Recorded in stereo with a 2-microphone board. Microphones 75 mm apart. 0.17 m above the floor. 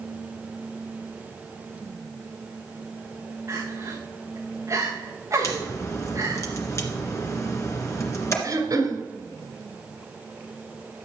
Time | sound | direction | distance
3.5 | crying | 45° right (ahead or behind) | 2.5 m
5.4 | a crack | 40° left (ahead or behind) | 2.5 m
8.4 | throat clearing | 55° right (ahead or behind) | 1.9 m